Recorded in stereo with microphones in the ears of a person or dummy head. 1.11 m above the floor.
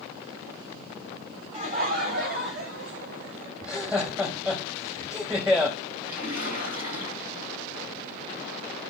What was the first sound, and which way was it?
Laughter, 40° right (ahead or behind).